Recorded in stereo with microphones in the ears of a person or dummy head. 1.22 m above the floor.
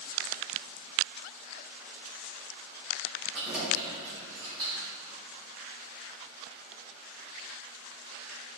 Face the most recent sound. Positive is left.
turn(degrees=-25)  # may be behind; listen again after turning